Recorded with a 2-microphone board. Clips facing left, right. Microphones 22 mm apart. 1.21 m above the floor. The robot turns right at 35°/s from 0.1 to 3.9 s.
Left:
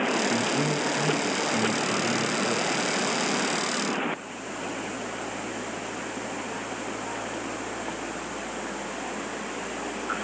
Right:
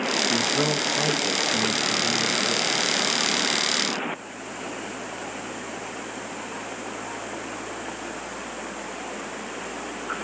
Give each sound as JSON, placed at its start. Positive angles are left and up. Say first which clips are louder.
{"t": 0.3, "sound": "a man speaking", "louder": "right 3 dB", "azimuth_deg": -75, "distance_m": 1.4}